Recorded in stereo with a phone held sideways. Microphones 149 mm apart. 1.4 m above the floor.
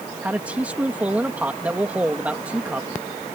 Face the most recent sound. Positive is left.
turn(degrees=-10)  # may be behind; listen again after turning